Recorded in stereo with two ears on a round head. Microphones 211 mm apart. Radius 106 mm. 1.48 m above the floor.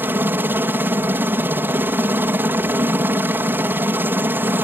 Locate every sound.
0.0 s a helicopter: 10° right (ahead or behind)